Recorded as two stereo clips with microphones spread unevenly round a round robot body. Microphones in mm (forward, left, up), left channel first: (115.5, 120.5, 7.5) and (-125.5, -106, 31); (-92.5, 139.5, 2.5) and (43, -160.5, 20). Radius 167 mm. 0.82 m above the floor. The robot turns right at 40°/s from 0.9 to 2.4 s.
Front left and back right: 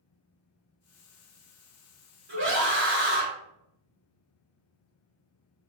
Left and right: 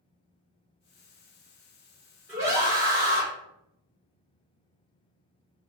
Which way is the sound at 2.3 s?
150° right.